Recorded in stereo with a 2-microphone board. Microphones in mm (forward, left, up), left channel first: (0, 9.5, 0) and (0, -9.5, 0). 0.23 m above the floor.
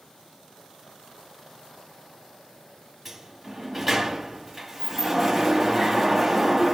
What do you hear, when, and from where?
3.0 s a sliding door: 5° right (ahead or behind), 1.1 m